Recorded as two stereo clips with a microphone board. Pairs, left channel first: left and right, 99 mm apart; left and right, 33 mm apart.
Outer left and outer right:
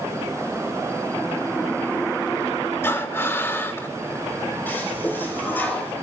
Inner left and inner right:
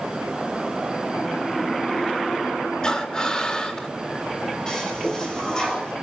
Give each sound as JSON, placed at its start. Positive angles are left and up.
{"t": 2.8, "sound": "breathing", "side_deg": 25, "distance_m": 2.5}
{"t": 4.7, "sound": "a toilet flushing", "side_deg": 20, "distance_m": 6.5}